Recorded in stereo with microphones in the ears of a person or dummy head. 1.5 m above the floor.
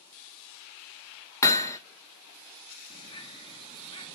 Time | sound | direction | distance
1.4 | hammering | 15° left (ahead or behind) | 0.7 m
2.9 | a bird | 30° left (ahead or behind) | 0.9 m